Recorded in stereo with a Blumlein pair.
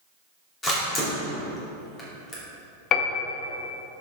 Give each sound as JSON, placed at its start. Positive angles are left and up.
{"t": 0.6, "sound": "a camera shutter", "azimuth_deg": 20, "distance_m": 3.0}
{"t": 2.9, "sound": "a piano", "azimuth_deg": 30, "distance_m": 0.8}